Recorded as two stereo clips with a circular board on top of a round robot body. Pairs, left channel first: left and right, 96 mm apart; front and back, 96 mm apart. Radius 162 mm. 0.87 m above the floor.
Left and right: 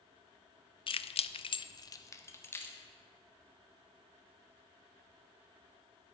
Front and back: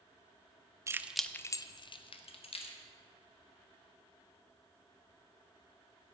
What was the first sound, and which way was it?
Keys jangling, 120° left.